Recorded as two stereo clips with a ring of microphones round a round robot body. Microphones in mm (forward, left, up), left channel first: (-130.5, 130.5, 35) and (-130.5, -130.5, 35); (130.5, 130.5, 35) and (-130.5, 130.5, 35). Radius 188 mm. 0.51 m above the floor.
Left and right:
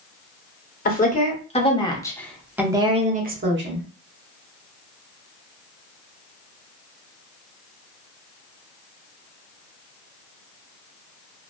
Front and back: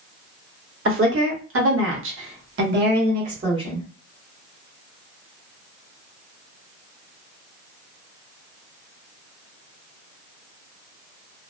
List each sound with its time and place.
0.8 s a woman speaking: 145° left, 1.5 m; by 3.9 s 105° right, 1.0 m